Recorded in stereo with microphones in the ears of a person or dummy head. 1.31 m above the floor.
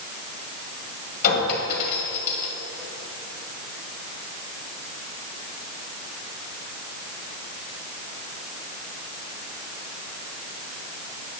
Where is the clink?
50° left (ahead or behind), 1.7 m.